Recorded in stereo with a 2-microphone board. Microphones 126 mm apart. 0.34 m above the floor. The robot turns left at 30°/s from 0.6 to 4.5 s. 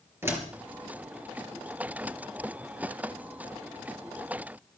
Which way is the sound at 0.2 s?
20° right (ahead or behind).